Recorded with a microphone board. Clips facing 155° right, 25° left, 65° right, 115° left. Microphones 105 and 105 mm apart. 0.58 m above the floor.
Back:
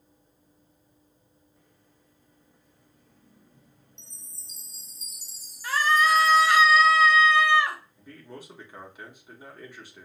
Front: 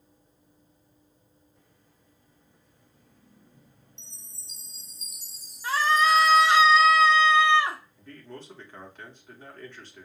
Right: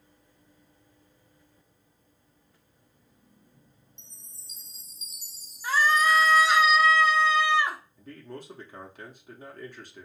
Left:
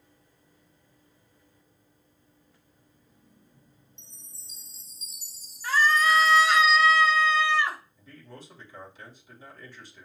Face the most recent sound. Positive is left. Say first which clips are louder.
# even, right 5 dB
turn(degrees=-80)